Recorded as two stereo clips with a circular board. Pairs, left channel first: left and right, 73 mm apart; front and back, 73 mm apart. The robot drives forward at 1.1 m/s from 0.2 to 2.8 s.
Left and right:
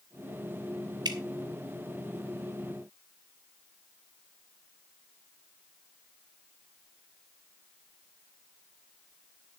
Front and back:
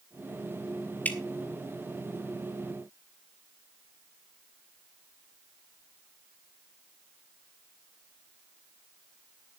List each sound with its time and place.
1.1 s dripping: 70° right, 1.5 m; by 1.2 s 75° right, 1.4 m